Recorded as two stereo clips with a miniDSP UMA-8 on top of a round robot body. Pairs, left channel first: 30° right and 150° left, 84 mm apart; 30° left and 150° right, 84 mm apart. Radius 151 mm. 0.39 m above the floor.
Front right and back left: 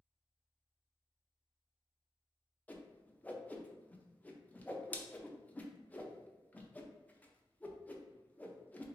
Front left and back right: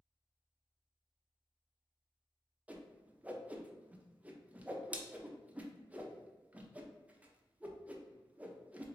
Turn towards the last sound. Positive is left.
turn(degrees=-90)